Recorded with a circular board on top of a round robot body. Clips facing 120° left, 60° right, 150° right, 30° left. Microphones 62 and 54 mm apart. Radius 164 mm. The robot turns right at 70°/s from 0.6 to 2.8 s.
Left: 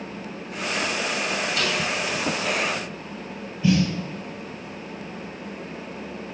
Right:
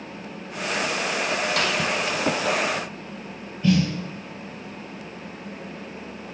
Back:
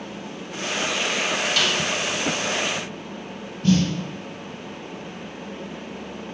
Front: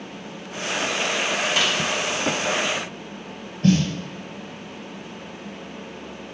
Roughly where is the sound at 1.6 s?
Ahead right.